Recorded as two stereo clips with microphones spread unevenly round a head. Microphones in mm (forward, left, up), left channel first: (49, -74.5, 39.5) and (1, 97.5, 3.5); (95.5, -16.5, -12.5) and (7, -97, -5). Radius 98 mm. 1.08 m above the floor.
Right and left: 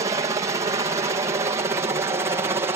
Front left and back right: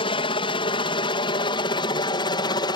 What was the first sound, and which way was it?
A helicopter, 55° left.